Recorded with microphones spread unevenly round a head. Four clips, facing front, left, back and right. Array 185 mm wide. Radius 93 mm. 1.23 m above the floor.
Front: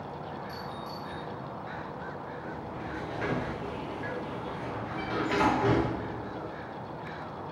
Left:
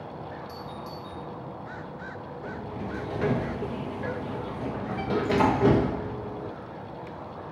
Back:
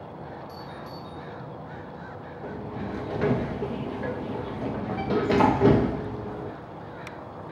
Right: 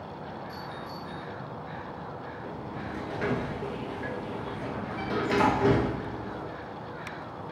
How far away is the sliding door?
About 1.1 m.